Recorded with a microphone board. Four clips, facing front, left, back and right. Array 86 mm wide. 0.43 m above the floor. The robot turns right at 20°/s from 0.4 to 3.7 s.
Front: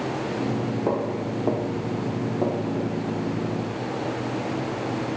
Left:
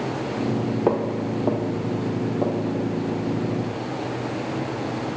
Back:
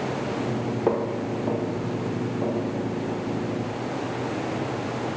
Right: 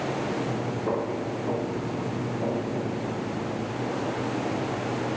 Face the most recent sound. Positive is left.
turn(degrees=70)